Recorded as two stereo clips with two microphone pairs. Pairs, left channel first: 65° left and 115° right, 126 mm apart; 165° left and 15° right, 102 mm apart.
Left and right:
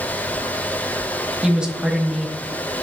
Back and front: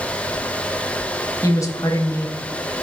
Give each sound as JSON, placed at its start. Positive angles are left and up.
{"t": 1.4, "sound": "a woman speaking", "azimuth_deg": 170, "distance_m": 1.0}